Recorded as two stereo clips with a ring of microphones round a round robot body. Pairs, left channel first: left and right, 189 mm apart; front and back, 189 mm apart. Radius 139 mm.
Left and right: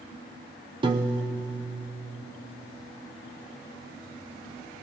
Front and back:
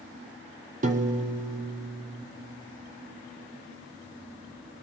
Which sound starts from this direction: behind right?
A piano, at 0.8 s.